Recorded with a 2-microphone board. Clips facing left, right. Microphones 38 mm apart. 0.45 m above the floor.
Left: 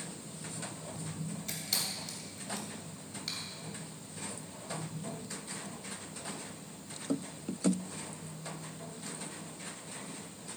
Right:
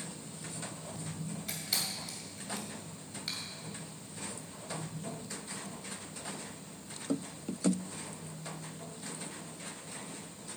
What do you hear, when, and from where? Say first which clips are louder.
1.5 s a camera shutter: right 1 dB; 5° right (ahead or behind), 2.5 m